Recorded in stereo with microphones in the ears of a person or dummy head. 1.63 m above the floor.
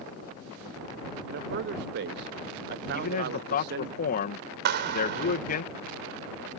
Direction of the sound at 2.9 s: 50° left (ahead or behind).